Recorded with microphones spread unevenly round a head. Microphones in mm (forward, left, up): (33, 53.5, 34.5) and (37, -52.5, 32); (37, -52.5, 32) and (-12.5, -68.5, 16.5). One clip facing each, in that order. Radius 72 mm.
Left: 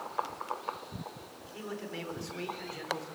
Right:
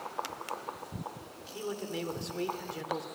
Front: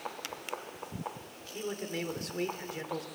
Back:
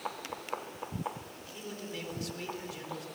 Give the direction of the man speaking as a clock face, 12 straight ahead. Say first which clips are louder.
Right 4 dB, front 6 dB; 1 o'clock.